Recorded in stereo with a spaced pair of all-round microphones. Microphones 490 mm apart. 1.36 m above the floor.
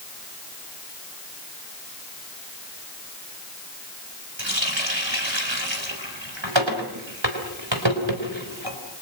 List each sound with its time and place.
4.4 s a running tap: 65° right (ahead or behind), 4 m